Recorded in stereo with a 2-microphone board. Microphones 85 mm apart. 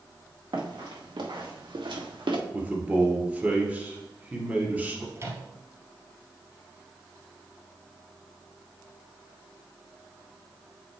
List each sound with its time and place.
0.5 s running footsteps: 70° right (ahead or behind), 3 m; by 2.4 s 85° right, 2 m
2.5 s a man speaking: 20° right (ahead or behind), 2 m
5.2 s a microwave: 35° right (ahead or behind), 1.8 m